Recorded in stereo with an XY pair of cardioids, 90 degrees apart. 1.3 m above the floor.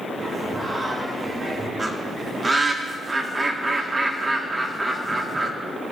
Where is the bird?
20° right, 1.8 m.